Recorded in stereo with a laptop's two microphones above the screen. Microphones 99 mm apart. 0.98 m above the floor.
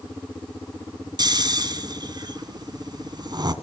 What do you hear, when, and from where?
1.2 s snoring: 45° right (ahead or behind), 1.6 m